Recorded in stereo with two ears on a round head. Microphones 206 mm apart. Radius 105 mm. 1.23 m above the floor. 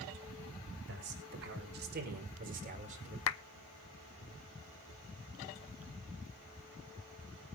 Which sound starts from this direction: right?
A man speaking, at 0.9 s.